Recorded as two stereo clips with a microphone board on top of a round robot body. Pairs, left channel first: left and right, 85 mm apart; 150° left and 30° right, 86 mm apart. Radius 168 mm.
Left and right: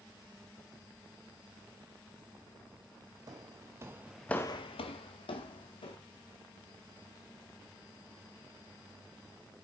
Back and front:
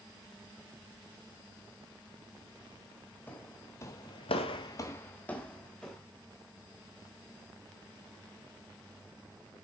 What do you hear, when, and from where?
3.3 s footsteps: 140° right, 1.8 m; by 6.0 s 70° left, 2.5 m